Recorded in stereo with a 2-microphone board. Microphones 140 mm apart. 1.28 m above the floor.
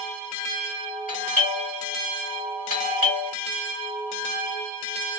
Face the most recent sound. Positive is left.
turn(degrees=80)